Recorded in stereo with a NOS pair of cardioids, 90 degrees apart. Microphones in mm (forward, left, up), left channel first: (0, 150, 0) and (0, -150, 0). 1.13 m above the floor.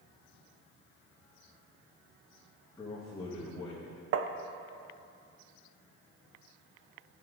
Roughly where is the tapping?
Ahead right.